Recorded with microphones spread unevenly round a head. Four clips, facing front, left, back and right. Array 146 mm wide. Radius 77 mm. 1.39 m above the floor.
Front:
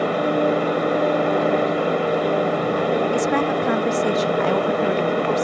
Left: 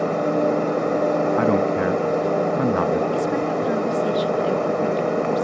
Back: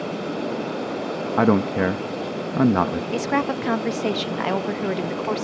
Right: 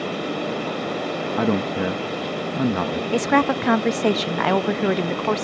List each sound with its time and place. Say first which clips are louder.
0.0 s a machine running: left 6 dB, front 8 dB; 40° left
1.4 s a man speaking: left 3 dB, even; 170° right
3.1 s a woman speaking: right 2 dB, front 3 dB; 100° right